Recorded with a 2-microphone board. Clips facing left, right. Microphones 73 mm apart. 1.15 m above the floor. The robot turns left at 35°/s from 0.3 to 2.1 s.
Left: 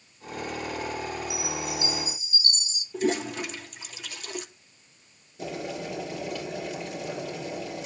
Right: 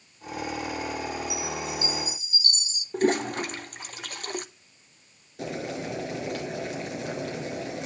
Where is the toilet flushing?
45° right (ahead or behind), 1.3 m.